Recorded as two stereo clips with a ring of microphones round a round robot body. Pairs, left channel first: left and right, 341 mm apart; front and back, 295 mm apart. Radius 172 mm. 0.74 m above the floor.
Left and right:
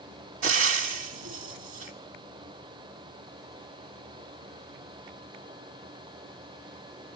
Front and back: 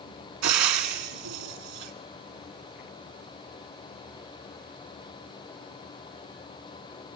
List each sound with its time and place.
0.4 s frying: 145° right, 2 m